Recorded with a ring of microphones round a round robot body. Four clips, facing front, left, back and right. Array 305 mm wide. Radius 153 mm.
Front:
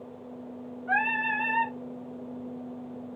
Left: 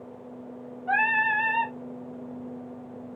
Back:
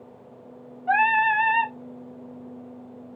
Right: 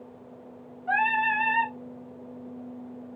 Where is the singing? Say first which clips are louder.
Even, back 8 dB; 175° right, 1.2 m.